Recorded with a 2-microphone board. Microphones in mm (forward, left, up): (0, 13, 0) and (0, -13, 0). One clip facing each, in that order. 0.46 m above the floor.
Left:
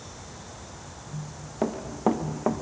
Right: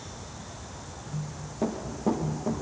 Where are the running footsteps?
35° left (ahead or behind), 1.7 m; by 2.6 s 70° left (ahead or behind), 1.3 m.